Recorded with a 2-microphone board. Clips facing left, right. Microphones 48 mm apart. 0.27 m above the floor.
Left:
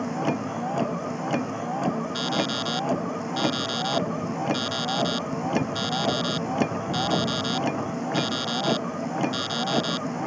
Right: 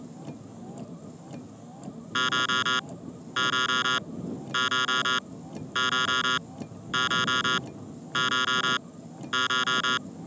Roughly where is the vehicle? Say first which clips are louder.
Left 15 dB; left.